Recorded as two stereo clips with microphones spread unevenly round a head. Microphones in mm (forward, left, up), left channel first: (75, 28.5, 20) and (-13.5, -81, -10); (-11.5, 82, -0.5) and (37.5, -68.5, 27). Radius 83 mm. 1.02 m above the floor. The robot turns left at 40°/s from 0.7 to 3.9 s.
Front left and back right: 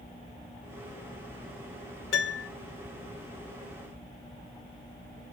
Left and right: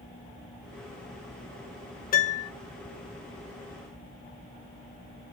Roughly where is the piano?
Left.